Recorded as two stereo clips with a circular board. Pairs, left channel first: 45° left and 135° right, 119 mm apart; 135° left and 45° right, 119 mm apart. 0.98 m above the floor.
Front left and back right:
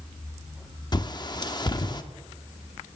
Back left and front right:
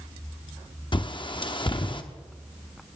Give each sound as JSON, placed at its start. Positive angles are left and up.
{"t": 0.9, "sound": "a bird", "azimuth_deg": 95, "distance_m": 0.7}